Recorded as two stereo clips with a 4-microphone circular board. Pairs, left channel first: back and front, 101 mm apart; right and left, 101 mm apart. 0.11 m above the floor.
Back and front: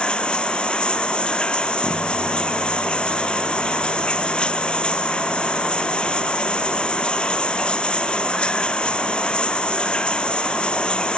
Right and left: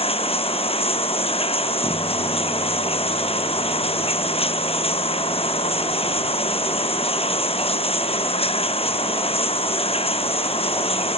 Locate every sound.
0.0 s running water: 100° right